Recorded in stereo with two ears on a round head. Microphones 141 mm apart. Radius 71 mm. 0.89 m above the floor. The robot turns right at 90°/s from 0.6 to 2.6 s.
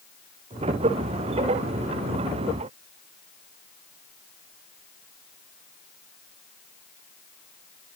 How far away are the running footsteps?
I don't hear running footsteps.